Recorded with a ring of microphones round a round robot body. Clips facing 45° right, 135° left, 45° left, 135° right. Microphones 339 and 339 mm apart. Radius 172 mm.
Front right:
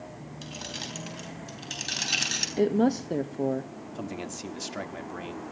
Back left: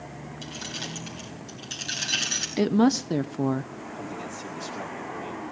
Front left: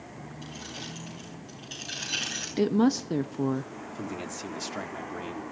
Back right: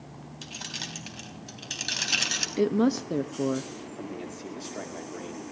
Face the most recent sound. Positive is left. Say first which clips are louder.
# front right 2 dB, front left 2 dB
turn(degrees=-10)